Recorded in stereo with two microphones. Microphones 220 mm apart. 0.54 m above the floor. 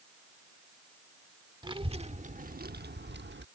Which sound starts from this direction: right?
A child speaking, at 1.6 s.